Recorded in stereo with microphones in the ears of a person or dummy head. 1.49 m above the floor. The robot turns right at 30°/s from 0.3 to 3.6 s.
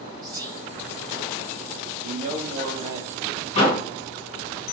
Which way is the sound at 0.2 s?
25° right (ahead or behind).